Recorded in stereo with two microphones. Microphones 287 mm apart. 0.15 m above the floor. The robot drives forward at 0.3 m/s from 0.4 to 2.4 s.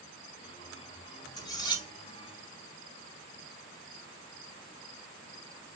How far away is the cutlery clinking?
About 1.0 m.